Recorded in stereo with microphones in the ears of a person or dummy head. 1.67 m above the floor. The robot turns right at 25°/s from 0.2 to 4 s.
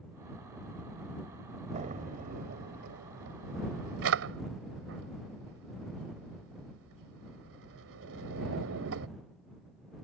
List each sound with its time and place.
1.7 s a drawer: 35° right (ahead or behind); by 9.1 s 75° right (ahead or behind)